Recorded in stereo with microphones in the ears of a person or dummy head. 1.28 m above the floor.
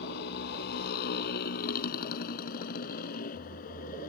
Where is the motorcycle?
60° left (ahead or behind); by 4.1 s 50° left (ahead or behind).